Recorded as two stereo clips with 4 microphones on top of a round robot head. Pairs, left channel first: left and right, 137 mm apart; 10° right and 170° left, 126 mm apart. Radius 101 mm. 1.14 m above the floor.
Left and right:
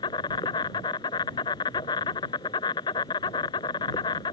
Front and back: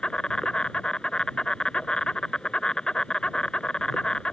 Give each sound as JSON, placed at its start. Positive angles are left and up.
{"t": 0.0, "sound": "an insect", "azimuth_deg": 70}